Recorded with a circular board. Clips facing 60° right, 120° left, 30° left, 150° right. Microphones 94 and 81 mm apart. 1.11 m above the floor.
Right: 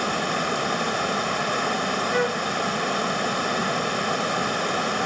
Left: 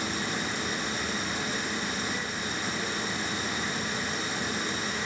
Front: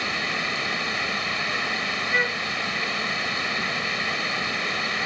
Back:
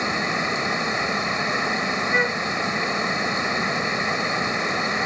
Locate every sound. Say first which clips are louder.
0.0 s running water: right 7 dB, back 4 dB; 80° right
2.1 s a flute: right 11 dB, back 1 dB; 75° right